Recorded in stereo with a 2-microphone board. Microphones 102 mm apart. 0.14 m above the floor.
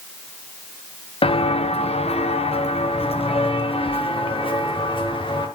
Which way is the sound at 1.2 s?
65° left (ahead or behind).